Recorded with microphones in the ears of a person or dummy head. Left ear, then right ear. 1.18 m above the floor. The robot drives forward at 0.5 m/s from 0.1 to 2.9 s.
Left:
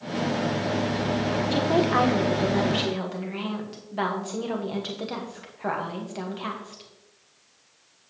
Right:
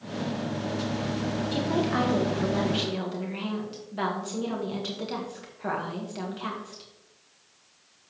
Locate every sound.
1.5 s a woman speaking: 30° left (ahead or behind), 0.9 m; by 6.8 s 15° left (ahead or behind), 1.5 m